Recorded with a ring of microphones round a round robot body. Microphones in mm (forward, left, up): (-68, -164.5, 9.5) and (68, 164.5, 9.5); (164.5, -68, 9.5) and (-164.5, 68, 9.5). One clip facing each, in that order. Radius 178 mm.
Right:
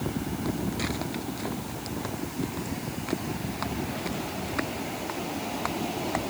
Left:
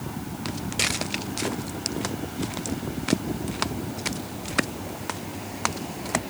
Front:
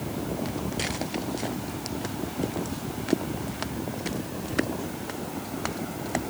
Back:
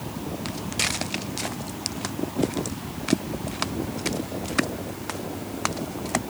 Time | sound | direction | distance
0.5 | footsteps | 100° left | ?